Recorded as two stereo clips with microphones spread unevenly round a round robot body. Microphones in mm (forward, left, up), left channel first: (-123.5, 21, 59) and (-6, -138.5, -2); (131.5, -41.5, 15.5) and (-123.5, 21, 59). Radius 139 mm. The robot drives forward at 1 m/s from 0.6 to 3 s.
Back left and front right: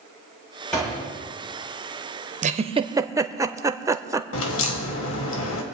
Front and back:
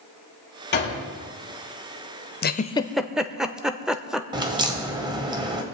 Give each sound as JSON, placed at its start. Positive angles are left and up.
{"t": 0.7, "sound": "a door slam", "azimuth_deg": 40, "distance_m": 6.5}
{"t": 2.4, "sound": "a giggle", "azimuth_deg": -45, "distance_m": 0.9}
{"t": 4.3, "sound": "a crack", "azimuth_deg": 90, "distance_m": 1.6}